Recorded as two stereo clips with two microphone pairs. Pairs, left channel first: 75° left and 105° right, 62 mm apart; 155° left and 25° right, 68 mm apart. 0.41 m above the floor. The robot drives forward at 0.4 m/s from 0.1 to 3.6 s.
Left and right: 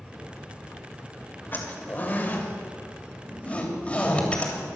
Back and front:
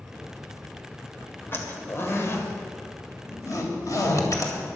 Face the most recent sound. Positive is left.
turn(degrees=140)